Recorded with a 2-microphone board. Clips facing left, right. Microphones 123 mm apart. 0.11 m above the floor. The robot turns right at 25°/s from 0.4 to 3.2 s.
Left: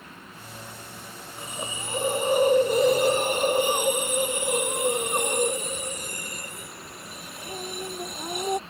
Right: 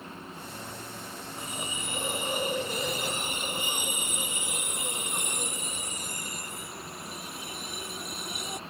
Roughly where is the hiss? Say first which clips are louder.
Left 4 dB; ahead left.